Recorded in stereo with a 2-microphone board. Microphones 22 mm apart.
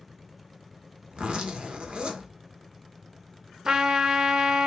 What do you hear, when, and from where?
1.1 s a zipper: 55° right (ahead or behind), 0.8 m
3.6 s a trumpet: 40° right (ahead or behind), 0.5 m